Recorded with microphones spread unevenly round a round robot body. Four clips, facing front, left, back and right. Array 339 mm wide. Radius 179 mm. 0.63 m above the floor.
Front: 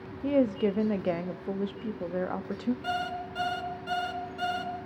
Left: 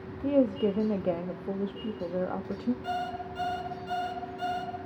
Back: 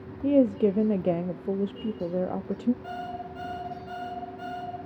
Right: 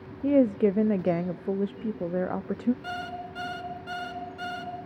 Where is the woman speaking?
150° right, 0.6 m.